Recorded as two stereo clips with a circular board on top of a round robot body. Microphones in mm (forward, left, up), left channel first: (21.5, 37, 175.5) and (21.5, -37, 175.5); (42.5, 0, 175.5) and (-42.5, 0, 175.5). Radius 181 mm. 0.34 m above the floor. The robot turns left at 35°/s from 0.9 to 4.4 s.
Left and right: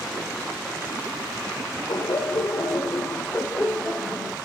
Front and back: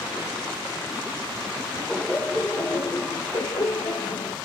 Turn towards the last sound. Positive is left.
turn(degrees=-5)